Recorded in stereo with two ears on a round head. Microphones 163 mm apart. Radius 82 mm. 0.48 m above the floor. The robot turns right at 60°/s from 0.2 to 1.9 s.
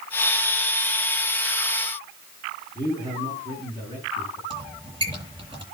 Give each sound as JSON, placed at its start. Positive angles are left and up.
{"t": 2.8, "sound": "a man speaking", "side_deg": -20, "distance_m": 6.0}
{"t": 4.5, "sound": "a squeak", "side_deg": -30, "distance_m": 9.5}